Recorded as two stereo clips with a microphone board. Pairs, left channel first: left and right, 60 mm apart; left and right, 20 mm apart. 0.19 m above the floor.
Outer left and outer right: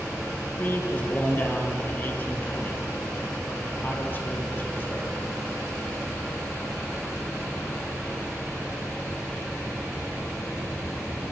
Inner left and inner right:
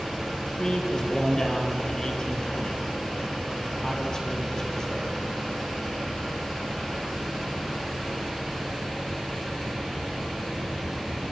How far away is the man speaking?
About 5.5 m.